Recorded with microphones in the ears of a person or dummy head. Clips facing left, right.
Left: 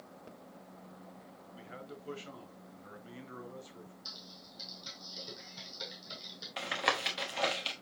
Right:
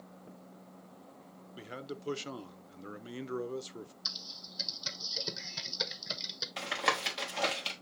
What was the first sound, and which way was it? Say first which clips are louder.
A man speaking: right 6 dB; 50° right (ahead or behind).